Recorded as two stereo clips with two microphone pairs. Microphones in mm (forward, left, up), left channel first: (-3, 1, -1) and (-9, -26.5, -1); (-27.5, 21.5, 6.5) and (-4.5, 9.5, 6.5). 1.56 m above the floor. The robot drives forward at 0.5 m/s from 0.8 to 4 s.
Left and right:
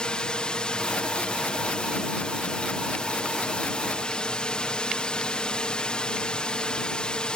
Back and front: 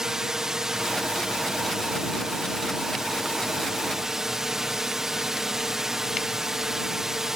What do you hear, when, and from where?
0.0 s a drone: 35° left; by 7.4 s 40° left